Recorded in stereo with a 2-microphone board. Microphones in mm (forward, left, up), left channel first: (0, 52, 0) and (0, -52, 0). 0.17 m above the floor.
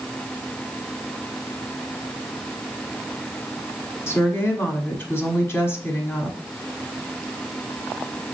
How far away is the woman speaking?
About 1.1 m.